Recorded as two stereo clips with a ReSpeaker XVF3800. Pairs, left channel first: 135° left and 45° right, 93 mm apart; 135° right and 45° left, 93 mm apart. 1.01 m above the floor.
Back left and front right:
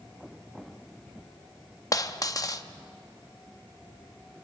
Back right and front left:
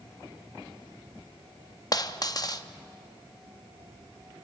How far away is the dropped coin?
About 0.6 m.